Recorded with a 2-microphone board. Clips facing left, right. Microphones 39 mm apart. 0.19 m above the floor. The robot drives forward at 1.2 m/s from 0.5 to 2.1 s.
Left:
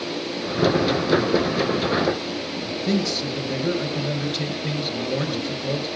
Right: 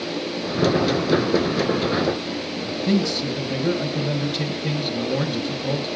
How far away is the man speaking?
About 3.5 m.